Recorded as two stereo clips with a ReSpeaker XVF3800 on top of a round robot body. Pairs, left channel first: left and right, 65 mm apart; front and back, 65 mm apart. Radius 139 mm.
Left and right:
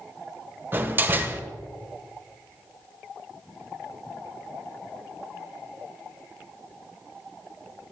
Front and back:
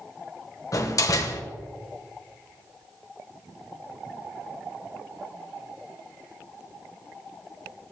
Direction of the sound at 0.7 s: 35° right.